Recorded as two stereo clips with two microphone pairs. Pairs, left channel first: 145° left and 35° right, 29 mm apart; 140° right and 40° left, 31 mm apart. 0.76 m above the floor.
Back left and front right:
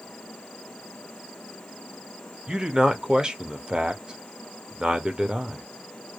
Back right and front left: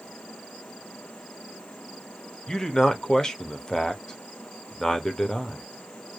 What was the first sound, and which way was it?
A man speaking, 85° right.